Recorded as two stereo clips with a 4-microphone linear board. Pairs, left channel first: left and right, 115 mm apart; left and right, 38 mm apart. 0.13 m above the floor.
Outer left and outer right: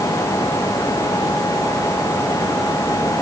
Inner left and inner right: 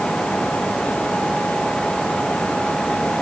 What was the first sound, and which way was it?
Only background noise.